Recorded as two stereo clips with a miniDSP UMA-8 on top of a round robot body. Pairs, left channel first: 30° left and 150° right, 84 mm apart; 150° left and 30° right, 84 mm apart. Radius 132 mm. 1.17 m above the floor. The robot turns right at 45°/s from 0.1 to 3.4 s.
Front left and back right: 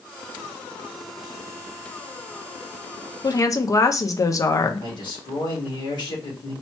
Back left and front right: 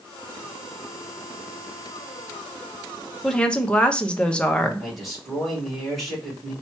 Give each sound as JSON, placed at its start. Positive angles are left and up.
{"t": 3.2, "sound": "a woman speaking", "azimuth_deg": 65, "distance_m": 0.7}
{"t": 4.8, "sound": "a man speaking", "azimuth_deg": 60, "distance_m": 1.9}